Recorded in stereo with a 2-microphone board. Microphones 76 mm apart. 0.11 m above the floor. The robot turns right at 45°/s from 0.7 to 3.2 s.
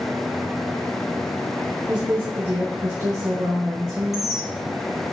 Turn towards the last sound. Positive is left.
turn(degrees=-5)  # may be behind; listen again after turning